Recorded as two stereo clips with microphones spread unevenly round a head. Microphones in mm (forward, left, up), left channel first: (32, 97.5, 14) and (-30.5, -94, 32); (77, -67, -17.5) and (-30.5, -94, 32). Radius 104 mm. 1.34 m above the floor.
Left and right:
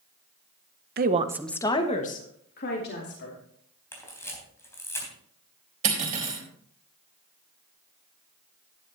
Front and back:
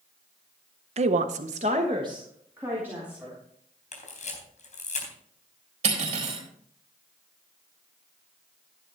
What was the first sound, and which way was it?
A woman speaking, 150° right.